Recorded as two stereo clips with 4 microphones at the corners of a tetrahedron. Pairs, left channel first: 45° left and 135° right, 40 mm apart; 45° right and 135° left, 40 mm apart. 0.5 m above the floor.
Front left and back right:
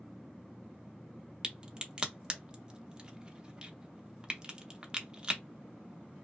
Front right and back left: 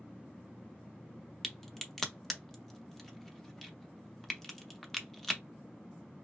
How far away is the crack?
About 0.6 m.